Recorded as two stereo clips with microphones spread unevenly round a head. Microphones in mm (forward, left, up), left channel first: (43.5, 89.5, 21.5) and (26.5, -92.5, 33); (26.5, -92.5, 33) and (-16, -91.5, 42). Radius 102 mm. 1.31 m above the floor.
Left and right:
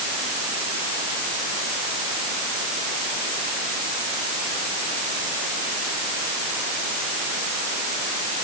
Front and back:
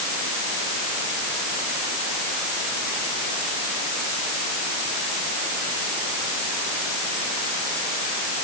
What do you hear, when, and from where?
Only background noise.